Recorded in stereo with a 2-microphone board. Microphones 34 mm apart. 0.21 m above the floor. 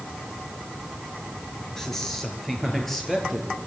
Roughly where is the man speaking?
Centre.